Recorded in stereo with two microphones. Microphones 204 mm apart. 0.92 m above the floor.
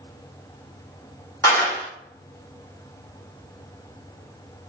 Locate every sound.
1.4 s a clap: 15° left (ahead or behind), 1.3 m